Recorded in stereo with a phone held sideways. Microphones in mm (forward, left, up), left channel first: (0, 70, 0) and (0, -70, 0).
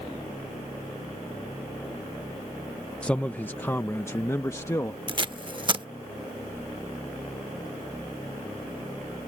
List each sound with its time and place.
3.0 s a man speaking: 10° left (ahead or behind); by 5.0 s 25° left (ahead or behind)
5.1 s tape being pulled: 35° right (ahead or behind)